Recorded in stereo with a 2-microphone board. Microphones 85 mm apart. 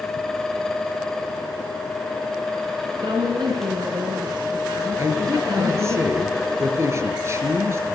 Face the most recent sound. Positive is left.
turn(degrees=-35)  # may be behind; listen again after turning